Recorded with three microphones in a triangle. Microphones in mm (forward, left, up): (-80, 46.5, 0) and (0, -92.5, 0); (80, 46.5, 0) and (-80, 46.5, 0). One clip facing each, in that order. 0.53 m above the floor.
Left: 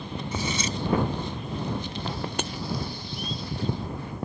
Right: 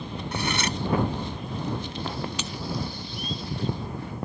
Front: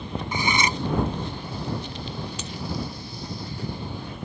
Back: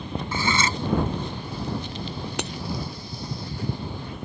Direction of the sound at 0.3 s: 70° right.